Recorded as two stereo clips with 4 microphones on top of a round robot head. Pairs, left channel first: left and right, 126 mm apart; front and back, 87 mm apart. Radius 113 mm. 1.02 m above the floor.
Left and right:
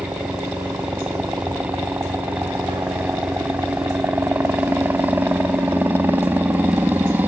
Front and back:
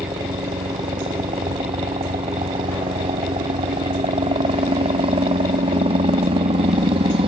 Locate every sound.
0.0 s a helicopter: 165° right